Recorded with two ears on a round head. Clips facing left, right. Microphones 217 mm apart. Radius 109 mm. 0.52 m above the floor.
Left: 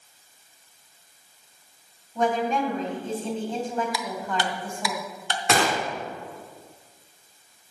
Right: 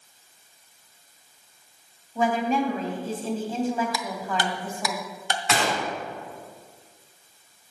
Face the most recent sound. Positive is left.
turn(degrees=45)  # may be behind; listen again after turning